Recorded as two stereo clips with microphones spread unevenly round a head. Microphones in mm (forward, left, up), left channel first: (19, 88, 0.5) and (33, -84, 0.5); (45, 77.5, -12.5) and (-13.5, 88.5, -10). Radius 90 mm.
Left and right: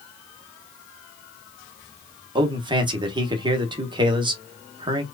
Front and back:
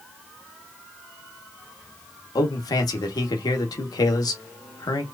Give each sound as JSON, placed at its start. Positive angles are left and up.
{"t": 2.4, "sound": "a man speaking", "azimuth_deg": -20, "distance_m": 1.2}